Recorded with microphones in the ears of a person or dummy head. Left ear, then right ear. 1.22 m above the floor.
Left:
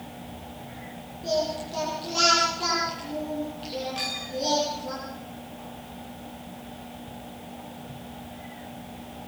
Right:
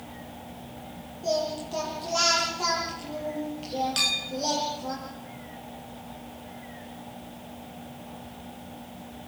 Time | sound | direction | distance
1.2 | singing | 30° right (ahead or behind) | 8 m
4.0 | a clink | 55° right (ahead or behind) | 2.5 m